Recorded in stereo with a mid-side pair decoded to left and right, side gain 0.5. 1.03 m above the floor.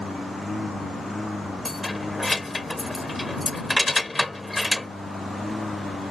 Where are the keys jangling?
10° left.